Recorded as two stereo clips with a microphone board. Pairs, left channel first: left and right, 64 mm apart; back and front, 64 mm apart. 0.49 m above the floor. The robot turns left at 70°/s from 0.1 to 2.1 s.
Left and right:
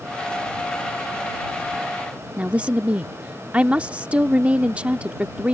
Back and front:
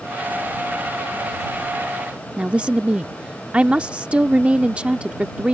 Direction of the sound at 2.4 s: 45° right.